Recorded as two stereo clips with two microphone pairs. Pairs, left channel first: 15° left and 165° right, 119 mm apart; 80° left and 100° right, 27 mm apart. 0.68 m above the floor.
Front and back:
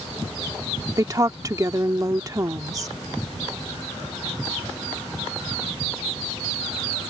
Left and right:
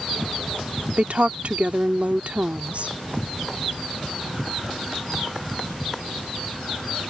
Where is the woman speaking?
110° right.